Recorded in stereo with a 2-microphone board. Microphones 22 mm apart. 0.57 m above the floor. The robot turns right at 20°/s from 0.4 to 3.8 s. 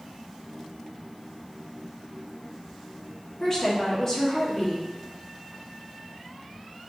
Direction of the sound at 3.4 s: 25° left (ahead or behind).